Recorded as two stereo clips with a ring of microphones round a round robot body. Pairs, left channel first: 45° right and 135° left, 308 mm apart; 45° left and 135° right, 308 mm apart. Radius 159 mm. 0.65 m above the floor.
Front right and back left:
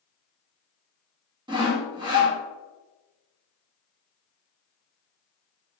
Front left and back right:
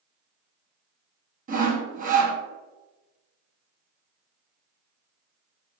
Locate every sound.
1.5 s sawing: 165° right, 1.0 m